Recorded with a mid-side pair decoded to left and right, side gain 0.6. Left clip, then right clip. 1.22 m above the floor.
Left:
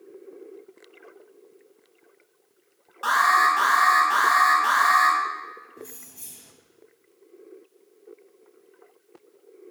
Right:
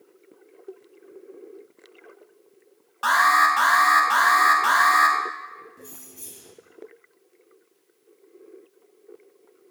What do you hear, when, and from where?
3.0 s an alarm: 30° right, 1.7 m
5.8 s keys jangling: straight ahead, 1.0 m